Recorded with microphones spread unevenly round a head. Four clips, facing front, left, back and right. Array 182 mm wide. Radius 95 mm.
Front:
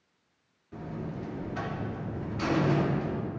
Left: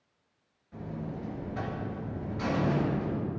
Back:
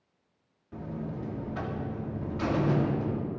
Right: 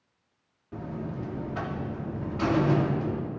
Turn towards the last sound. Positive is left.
turn(degrees=-90)